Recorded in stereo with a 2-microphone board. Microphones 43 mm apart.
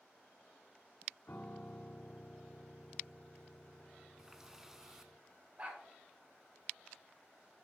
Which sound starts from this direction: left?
A piano, at 1.3 s.